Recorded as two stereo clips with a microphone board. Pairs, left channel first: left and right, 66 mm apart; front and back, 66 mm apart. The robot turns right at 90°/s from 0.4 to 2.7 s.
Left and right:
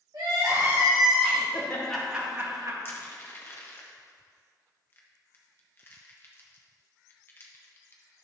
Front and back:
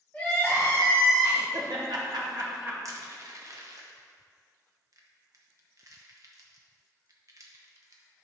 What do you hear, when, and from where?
0.1 s crying: 70° right, 2.5 m; by 1.4 s 20° left, 2.5 m
1.5 s laughter: 135° left, 1.7 m; by 2.8 s 120° right, 1.7 m
2.9 s crushing: 145° left, 1.0 m